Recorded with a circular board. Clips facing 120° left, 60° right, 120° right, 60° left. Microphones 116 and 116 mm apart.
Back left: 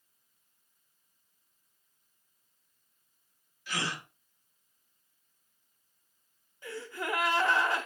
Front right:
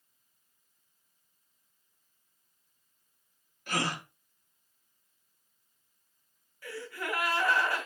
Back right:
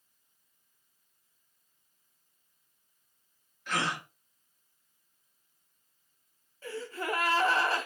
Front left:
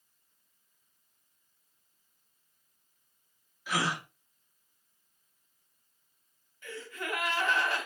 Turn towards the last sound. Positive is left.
turn(degrees=-175)